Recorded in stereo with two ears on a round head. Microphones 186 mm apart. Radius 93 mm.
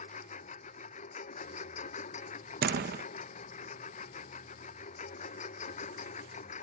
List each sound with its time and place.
0.0 s a lawn mower: 35° left (ahead or behind)
2.6 s a door slam: 45° right (ahead or behind)